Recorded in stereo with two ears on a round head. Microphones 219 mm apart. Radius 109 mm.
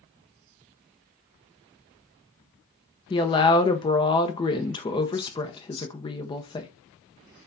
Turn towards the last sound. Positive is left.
turn(degrees=20)  # may be behind; listen again after turning